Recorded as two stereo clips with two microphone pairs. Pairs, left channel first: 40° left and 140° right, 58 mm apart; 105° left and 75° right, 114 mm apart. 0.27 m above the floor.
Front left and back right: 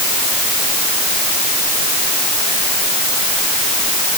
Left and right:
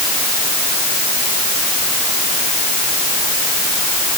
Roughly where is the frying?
I don't hear frying.